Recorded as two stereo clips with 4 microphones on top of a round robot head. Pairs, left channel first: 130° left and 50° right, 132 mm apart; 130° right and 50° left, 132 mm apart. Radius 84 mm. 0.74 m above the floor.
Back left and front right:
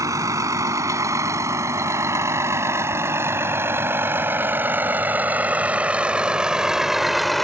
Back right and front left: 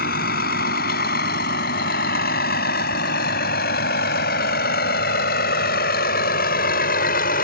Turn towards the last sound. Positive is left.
turn(degrees=-140)